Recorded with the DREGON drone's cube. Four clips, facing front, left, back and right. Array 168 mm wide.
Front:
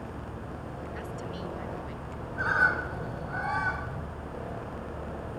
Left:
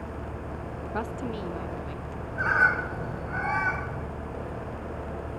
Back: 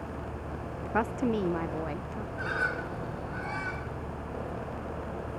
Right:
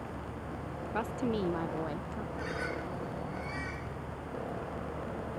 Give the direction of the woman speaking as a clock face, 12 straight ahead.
6 o'clock.